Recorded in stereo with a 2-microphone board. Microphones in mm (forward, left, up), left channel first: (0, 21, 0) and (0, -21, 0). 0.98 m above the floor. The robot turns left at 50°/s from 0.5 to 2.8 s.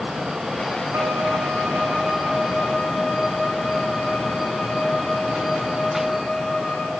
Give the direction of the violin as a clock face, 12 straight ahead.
3 o'clock.